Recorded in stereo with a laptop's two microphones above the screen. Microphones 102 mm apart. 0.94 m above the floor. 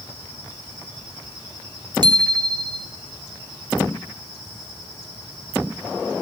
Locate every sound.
2.0 s a bicycle bell: 50° right (ahead or behind), 2.5 m